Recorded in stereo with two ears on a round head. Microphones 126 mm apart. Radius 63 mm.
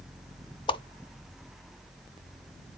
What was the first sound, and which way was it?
A whoosh, 35° left (ahead or behind).